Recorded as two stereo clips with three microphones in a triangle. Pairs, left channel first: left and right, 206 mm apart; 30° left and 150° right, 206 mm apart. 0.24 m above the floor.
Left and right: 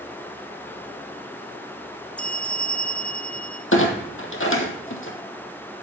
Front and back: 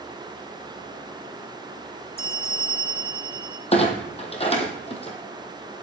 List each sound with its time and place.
2.2 s a bell: 175° left, 0.8 m
3.7 s a clunk: 90° left, 1.7 m